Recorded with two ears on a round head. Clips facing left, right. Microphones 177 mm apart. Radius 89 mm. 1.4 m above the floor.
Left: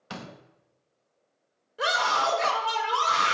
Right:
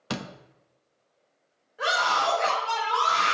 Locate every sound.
0.1 s a door slam: 70° right (ahead or behind), 1.2 m
1.8 s a scream: 55° left (ahead or behind), 5 m